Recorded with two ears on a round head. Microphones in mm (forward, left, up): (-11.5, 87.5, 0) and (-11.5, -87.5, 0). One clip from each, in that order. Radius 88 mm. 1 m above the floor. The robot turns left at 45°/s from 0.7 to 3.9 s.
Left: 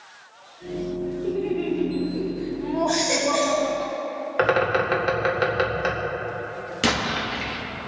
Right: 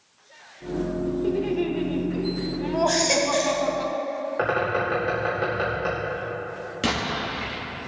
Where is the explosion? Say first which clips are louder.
Left 3 dB; 25° left (ahead or behind), 1.9 m.